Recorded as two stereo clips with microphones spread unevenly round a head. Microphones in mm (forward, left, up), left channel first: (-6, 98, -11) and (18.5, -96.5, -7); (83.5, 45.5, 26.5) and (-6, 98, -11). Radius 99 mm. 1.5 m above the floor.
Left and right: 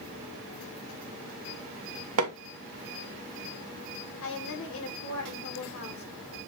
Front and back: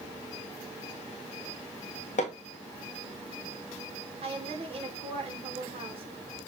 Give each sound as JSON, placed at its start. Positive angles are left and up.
{"t": 2.2, "sound": "hammering", "azimuth_deg": -70, "distance_m": 1.5}
{"t": 4.2, "sound": "a woman speaking", "azimuth_deg": 125, "distance_m": 3.0}